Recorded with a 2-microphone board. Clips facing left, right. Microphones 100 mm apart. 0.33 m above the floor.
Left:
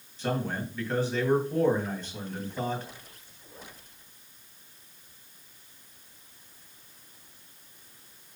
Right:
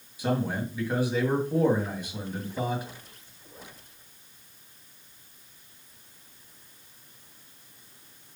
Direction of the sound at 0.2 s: 10° right (ahead or behind).